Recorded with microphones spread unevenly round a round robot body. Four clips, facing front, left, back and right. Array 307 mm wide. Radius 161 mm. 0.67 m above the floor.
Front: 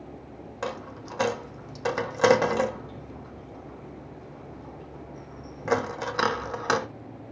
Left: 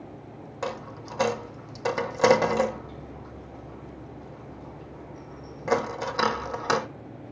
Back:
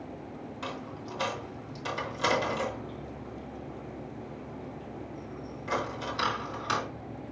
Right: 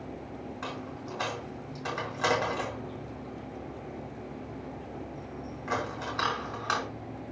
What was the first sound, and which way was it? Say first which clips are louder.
A dropped coin: left 8 dB, front 6 dB; 45° left.